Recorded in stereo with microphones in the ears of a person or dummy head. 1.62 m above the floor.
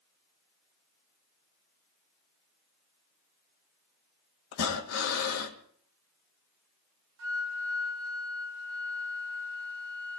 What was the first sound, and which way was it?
Breathing, 70° left (ahead or behind).